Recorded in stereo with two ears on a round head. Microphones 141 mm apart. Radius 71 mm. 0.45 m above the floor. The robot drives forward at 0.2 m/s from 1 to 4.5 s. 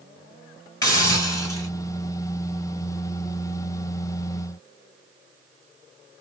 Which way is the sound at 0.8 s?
25° left (ahead or behind).